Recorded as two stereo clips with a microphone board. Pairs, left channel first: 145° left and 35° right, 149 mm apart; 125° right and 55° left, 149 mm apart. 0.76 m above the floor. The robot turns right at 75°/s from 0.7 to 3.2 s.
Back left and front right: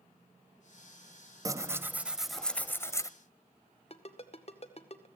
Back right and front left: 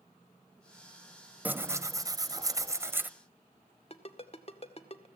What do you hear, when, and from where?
1.4 s tearing paper: 5° right, 0.6 m; by 3.1 s 120° left, 0.6 m
3.9 s a ringtone: 170° right, 1.7 m